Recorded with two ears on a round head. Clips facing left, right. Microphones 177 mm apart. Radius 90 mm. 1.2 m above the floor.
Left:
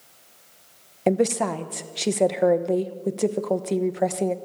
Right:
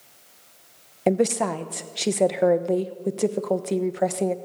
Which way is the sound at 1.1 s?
Centre (ahead or behind).